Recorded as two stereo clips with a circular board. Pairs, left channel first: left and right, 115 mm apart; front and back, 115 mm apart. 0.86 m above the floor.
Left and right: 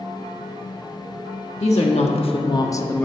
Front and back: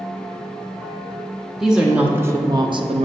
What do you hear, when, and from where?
1.6 s a woman speaking: 95° left, 1.0 m; by 3.0 s 170° left, 0.6 m